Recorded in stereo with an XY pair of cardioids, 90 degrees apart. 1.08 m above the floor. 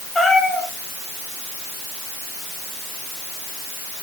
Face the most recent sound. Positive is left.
turn(degrees=40)